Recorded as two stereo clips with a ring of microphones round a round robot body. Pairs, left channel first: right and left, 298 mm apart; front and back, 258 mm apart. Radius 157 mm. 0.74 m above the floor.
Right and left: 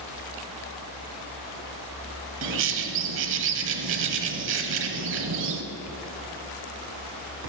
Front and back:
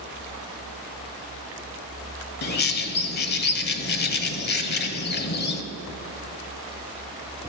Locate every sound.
2.4 s a bird: 45° left, 0.8 m